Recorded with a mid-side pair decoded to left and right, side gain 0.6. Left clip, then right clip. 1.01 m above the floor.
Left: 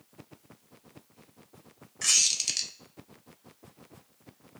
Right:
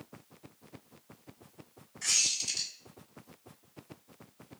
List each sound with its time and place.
2.0 s a squeak: 50° left, 0.7 m